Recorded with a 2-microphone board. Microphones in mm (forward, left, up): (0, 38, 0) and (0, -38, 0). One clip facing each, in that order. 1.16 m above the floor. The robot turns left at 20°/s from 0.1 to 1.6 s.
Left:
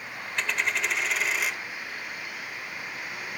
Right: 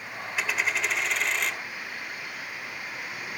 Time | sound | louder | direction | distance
0.4 | a dropped coin | even | 5° right (ahead or behind) | 1.0 m